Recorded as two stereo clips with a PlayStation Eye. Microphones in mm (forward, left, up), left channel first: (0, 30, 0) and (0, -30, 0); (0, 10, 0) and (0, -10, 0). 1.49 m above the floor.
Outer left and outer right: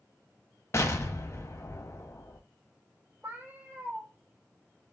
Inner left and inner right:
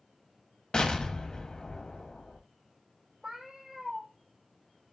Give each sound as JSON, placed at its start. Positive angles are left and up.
{"t": 0.7, "sound": "an explosion", "side_deg": 45, "distance_m": 0.6}
{"t": 3.2, "sound": "a cat meowing", "side_deg": -35, "distance_m": 1.1}